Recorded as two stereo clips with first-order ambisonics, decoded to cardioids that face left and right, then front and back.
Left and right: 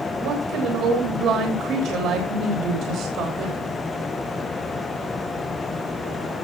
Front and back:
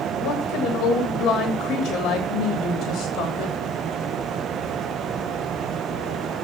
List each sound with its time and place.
0.2 s a woman speaking: 45° right, 3 m